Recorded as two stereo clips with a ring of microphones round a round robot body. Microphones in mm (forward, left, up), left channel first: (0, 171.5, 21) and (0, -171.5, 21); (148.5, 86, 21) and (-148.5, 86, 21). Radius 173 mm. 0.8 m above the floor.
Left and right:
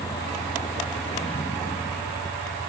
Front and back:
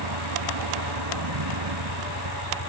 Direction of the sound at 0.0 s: 170° left.